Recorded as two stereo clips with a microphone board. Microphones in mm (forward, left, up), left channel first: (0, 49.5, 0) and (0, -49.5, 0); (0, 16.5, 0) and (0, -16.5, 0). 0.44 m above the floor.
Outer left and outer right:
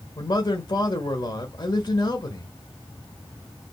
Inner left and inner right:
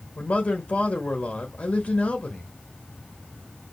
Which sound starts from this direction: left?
A man speaking, at 0.2 s.